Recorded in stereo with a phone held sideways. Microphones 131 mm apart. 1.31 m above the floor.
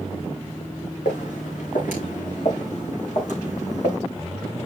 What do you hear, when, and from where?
1.1 s footsteps: 65° left (ahead or behind), 5 m